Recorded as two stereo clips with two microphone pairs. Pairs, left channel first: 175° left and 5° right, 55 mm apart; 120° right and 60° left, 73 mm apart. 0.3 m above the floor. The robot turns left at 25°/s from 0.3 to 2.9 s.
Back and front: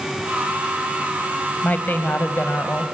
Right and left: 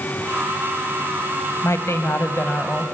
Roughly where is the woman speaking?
Behind right.